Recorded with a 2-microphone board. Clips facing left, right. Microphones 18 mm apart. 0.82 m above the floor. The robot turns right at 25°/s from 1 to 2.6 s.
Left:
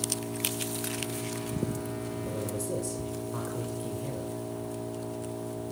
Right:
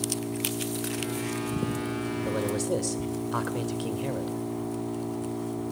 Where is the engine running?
175° right, 5.5 m; by 5.7 s 135° right, 5.5 m.